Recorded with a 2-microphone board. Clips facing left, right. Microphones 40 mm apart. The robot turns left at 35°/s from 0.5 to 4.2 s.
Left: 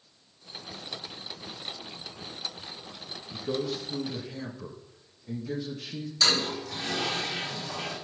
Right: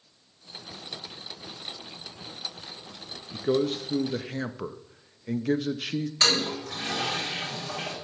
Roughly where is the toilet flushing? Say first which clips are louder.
Even; right.